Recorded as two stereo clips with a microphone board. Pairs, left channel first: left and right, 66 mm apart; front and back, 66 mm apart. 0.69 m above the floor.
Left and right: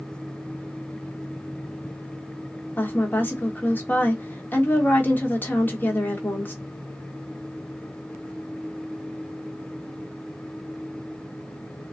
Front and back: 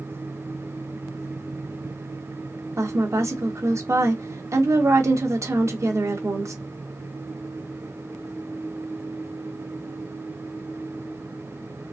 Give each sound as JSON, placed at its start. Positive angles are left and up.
{"t": 2.8, "sound": "a woman speaking", "azimuth_deg": 145, "distance_m": 1.3}